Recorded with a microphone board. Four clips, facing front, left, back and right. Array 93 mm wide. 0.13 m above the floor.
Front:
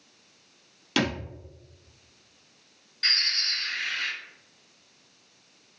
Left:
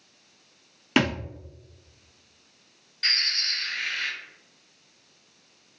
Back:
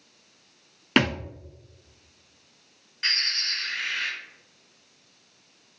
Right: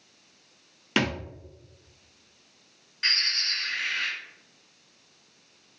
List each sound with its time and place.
1.0 s a thud: 170° left, 0.6 m
3.0 s a bird: 135° right, 1.8 m